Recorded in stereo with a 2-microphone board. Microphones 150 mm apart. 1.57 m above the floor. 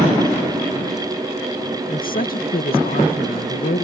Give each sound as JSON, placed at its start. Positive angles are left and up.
{"t": 1.9, "sound": "a woman speaking", "side_deg": 70}